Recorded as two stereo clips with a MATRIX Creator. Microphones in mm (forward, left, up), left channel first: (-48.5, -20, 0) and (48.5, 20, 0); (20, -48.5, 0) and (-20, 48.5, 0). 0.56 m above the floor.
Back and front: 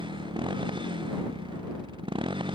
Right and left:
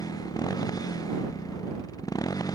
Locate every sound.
0.0 s a motorcycle: 15° right